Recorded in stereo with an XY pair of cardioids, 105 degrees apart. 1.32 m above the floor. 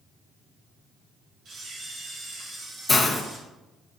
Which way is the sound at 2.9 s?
30° left.